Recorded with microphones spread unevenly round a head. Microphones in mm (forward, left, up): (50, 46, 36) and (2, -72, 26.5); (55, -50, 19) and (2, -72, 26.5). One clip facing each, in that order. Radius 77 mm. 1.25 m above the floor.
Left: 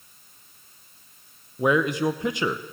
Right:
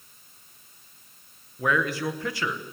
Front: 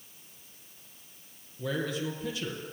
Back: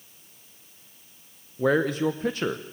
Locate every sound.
1.6 s a man speaking: 145° left, 0.9 m